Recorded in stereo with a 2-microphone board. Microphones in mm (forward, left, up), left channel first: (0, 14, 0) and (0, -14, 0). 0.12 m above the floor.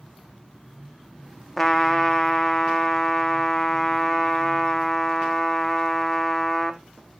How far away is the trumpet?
About 1.0 m.